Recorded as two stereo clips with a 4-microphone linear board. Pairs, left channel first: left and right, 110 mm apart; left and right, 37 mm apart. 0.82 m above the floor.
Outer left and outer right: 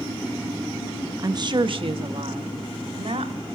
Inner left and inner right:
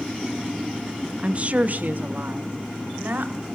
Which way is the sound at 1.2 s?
35° right (ahead or behind).